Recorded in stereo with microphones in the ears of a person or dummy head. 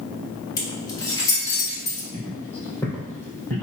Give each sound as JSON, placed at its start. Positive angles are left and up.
{"t": 0.6, "sound": "keys jangling", "side_deg": 20, "distance_m": 1.1}
{"t": 2.1, "sound": "footsteps", "side_deg": 15, "distance_m": 2.0}